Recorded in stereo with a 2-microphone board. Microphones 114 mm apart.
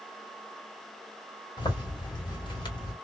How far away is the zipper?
About 1.7 m.